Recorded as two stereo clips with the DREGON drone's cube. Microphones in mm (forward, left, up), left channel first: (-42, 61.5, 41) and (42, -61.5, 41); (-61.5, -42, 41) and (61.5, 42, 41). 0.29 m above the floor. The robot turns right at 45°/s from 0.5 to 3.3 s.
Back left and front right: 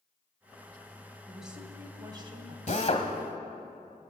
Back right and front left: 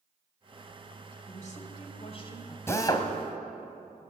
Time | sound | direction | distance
1.3 | a woman speaking | 150° right | 2 m
2.7 | a drill | 145° left | 1.3 m